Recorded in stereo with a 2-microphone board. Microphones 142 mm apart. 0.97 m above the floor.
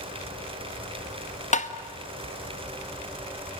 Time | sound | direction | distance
1.5 | tapping | 55° left (ahead or behind) | 1.5 m